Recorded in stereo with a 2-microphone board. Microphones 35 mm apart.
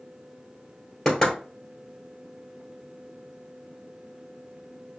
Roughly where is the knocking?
Centre.